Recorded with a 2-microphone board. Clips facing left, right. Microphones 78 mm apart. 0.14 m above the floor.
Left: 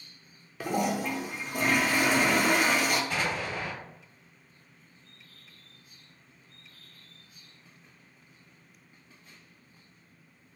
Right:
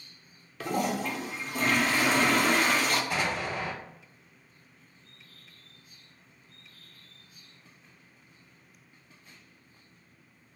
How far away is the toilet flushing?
About 0.7 m.